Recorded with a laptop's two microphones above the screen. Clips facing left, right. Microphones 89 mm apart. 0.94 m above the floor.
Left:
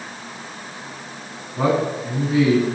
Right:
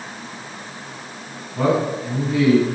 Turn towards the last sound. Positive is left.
turn(degrees=5)  # may be behind; listen again after turning